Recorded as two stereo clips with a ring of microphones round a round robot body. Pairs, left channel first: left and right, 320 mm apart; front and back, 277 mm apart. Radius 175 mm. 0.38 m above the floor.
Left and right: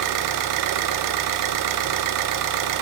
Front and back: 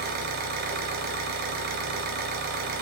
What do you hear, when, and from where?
0.0 s an engine running: 120° right, 0.8 m